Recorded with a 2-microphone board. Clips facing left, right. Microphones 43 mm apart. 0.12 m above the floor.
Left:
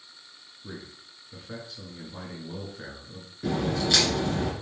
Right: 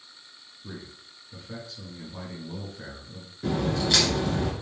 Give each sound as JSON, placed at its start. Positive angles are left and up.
{"t": 0.6, "sound": "a man speaking", "side_deg": 20, "distance_m": 1.1}
{"t": 3.4, "sound": "a crack", "side_deg": 0, "distance_m": 1.8}